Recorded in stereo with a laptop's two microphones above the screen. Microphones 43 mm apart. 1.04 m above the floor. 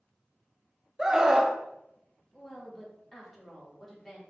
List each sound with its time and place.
1.0 s a scream: 15° right (ahead or behind), 0.6 m
2.3 s a woman speaking: 10° left (ahead or behind), 1.8 m